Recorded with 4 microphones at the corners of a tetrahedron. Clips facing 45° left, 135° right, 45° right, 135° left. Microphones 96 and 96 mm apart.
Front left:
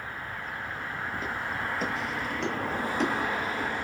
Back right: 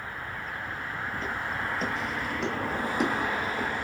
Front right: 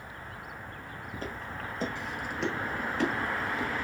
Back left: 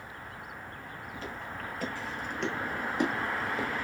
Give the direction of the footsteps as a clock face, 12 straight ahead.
1 o'clock.